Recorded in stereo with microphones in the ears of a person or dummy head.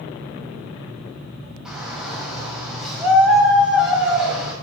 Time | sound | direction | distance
1.6 | a shout | 5° right (ahead or behind) | 9.5 m